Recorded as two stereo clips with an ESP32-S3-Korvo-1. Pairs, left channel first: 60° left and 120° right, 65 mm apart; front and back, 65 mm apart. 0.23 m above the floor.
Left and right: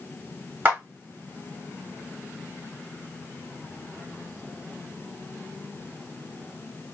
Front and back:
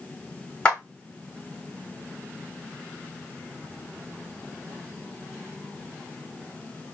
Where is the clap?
65° right, 1.8 m.